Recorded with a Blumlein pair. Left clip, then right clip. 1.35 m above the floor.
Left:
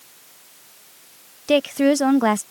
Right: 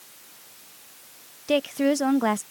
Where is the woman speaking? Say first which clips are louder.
Left 5 dB; 15° left.